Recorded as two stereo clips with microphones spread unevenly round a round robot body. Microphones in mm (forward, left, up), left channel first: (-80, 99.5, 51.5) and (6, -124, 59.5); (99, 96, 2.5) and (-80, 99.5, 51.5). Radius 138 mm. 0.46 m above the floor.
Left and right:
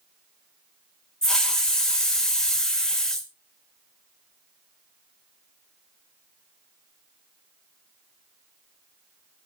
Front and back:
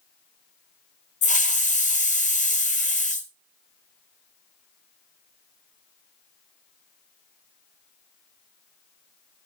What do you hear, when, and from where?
1.2 s a hiss: 25° left, 1.6 m